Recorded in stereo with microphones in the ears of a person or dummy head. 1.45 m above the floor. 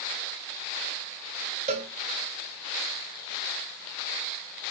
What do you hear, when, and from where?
1.7 s a cowbell: 35° right (ahead or behind), 0.7 m